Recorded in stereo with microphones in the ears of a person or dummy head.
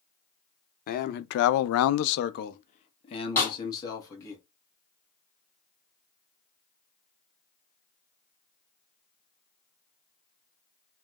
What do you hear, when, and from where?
0.9 s a man speaking: 40° left (ahead or behind), 0.7 m; by 4.4 s 25° left (ahead or behind), 1.6 m
3.4 s a snare drum: 20° left (ahead or behind), 2 m